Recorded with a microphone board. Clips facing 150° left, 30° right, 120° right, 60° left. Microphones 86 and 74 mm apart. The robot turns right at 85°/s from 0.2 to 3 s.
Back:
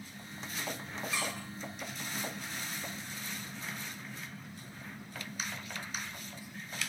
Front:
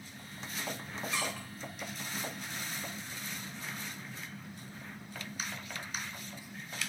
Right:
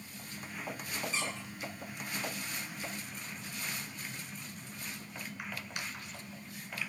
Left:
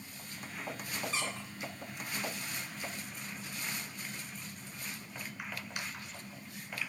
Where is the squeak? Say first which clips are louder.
Front 1 dB, left 1 dB; 70° left, 1.4 m; by 1.5 s 95° left, 1.4 m.